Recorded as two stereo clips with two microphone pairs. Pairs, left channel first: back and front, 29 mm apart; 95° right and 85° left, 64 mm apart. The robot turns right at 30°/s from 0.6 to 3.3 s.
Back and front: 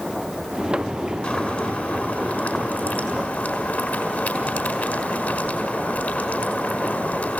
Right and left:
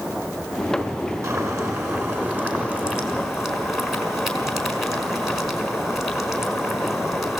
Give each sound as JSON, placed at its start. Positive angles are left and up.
{"t": 1.2, "sound": "boiling", "azimuth_deg": 115, "distance_m": 5.0}